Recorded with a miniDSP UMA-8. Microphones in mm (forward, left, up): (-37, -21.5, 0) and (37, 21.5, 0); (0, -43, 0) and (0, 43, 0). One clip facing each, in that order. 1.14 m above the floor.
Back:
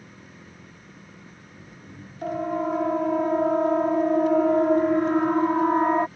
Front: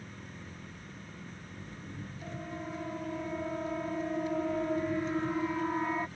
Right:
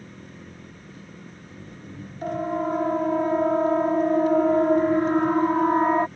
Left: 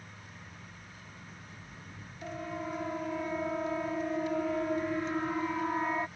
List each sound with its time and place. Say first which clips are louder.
0.0 s an engine running: even, right 8 dB; 70° right
2.2 s a siren: back 16 dB, right 12 dB; 130° right; by 6.1 s 120° right